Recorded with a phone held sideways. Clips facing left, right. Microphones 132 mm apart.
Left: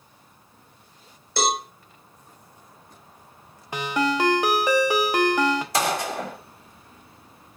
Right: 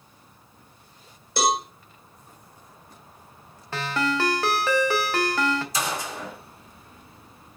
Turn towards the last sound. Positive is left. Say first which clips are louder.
# left 5 dB
turn(degrees=65)  # may be behind; listen again after turning